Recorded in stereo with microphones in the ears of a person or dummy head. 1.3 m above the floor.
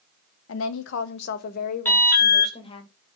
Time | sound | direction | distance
0.5 | a woman speaking | 85° left | 1.2 m
1.9 | an alarm | 10° left (ahead or behind) | 4.5 m